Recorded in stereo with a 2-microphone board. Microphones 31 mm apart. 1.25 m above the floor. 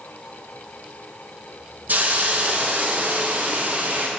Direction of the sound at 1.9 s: 60° right (ahead or behind).